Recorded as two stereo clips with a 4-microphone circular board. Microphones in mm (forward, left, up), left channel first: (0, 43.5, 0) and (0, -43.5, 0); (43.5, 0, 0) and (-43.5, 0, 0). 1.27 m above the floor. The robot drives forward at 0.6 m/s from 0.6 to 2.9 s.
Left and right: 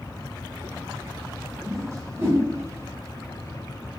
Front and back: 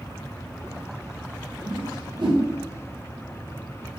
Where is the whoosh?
135° right, 0.7 m; by 2.4 s 155° right, 1.1 m.